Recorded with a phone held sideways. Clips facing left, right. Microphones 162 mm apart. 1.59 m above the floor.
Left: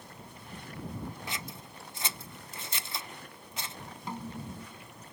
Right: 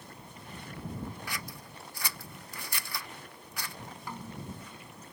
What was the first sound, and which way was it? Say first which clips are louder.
Scissors: even; 25° left (ahead or behind).